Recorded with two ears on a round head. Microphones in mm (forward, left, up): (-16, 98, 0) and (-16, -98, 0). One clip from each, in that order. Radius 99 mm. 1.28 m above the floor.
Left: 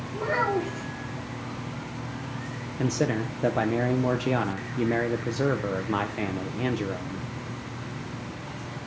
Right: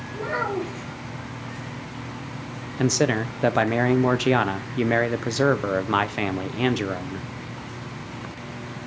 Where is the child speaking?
10° left (ahead or behind), 2 m.